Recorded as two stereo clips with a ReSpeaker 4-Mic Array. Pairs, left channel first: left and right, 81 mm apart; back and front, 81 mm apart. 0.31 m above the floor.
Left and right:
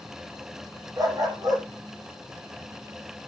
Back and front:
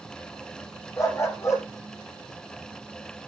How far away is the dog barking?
About 3 m.